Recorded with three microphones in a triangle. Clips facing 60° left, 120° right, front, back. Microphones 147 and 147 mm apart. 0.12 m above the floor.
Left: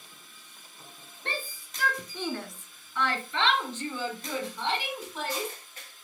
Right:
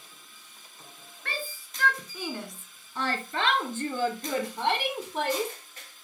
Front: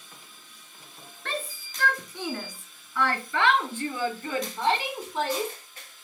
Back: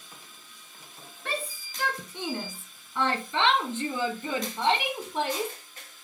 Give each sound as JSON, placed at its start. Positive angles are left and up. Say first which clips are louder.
{"t": 1.2, "sound": "a shout", "louder": "even, even", "azimuth_deg": 110, "distance_m": 1.4}